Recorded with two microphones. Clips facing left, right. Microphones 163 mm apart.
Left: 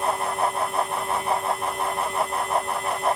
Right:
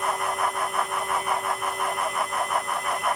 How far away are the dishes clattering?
I don't hear dishes clattering.